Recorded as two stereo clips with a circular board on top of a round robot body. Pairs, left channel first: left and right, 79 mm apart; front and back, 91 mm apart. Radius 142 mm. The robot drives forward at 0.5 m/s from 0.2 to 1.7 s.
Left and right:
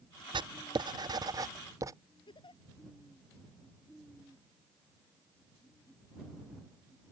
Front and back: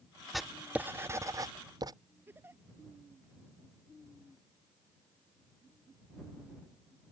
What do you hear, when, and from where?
0.3 s writing: 90° right; by 1.9 s 135° right
2.3 s a giggle: 110° left